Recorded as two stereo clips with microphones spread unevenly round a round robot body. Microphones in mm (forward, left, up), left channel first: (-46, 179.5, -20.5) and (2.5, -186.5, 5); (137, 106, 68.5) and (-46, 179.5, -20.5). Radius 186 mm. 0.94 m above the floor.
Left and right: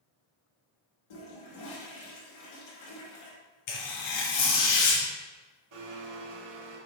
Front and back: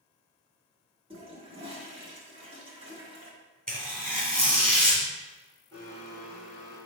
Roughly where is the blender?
Right.